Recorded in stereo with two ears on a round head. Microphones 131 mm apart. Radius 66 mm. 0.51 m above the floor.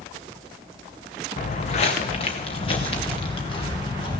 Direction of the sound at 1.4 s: 50° left (ahead or behind).